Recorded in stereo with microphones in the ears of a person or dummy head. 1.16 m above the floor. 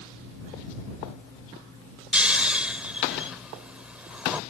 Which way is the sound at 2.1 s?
5° right (ahead or behind).